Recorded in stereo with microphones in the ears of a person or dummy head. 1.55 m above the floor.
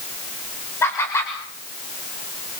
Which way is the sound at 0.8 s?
15° left (ahead or behind).